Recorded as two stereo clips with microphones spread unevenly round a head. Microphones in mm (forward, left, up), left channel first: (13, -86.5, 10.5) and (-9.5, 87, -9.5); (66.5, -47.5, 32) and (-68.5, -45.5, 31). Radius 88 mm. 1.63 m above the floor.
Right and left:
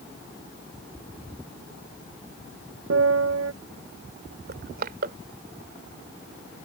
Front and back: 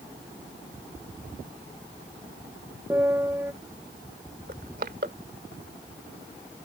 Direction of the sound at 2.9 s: 100° left.